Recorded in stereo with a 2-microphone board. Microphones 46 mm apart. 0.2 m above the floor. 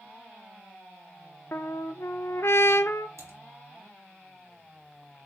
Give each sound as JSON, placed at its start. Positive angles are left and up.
{"t": 1.5, "sound": "a trumpet", "side_deg": 70, "distance_m": 0.8}
{"t": 3.2, "sound": "typing on a keyboard", "side_deg": -70, "distance_m": 4.5}